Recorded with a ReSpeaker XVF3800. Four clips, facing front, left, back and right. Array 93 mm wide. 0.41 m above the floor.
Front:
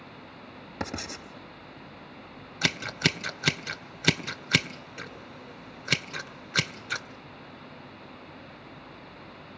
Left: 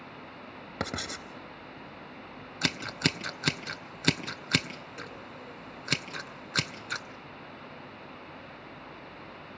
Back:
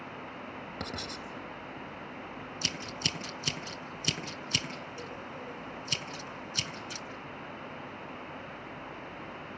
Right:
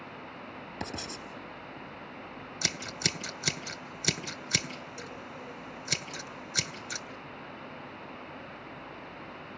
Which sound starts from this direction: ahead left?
Scissors, at 2.6 s.